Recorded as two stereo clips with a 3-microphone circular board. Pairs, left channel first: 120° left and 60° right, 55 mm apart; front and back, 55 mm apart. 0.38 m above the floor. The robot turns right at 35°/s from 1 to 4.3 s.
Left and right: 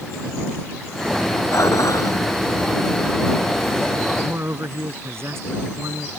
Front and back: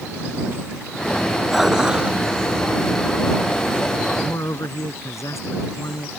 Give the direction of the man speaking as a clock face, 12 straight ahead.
1 o'clock.